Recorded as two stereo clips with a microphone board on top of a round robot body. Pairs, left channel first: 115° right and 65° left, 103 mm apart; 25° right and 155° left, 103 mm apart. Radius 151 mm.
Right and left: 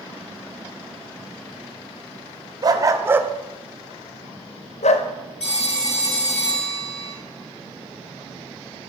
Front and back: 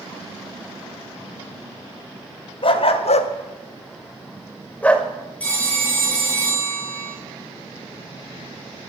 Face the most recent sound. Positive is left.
turn(degrees=-100)